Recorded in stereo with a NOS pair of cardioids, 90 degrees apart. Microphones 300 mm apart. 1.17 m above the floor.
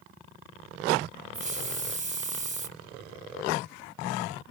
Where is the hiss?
25° right, 1.2 m.